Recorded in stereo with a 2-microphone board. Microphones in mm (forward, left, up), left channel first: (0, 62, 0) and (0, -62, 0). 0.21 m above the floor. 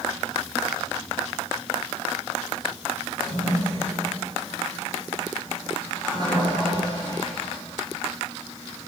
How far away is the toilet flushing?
About 4 m.